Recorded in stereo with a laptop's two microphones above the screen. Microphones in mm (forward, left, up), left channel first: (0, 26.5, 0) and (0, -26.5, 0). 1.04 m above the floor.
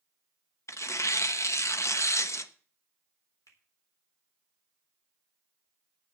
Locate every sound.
0.7 s tearing paper: 65° left (ahead or behind), 0.9 m
3.5 s a finger snap: 75° left (ahead or behind), 3.5 m